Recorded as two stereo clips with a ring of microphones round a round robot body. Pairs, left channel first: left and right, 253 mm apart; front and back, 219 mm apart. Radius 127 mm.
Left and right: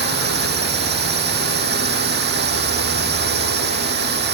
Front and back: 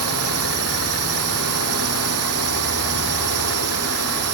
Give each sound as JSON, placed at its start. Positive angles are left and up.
{"t": 0.0, "sound": "a drone", "azimuth_deg": -140}